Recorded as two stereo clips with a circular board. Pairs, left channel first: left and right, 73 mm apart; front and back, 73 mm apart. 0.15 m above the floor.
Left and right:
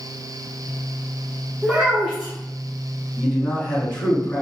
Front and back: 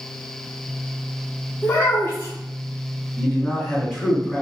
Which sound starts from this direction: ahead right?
A child speaking, at 1.6 s.